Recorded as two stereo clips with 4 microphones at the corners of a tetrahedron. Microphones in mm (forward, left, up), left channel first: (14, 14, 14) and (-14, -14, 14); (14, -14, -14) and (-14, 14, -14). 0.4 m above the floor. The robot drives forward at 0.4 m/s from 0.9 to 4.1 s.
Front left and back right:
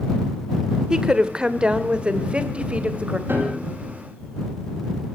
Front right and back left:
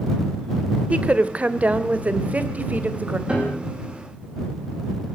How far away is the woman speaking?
About 1.6 m.